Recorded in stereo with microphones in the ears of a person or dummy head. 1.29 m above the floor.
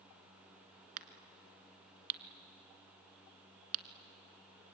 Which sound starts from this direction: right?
A crack, at 1.0 s.